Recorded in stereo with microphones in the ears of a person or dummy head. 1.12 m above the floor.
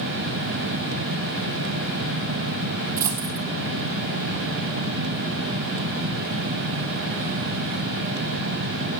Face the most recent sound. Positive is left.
turn(degrees=-15)  # may be behind; listen again after turning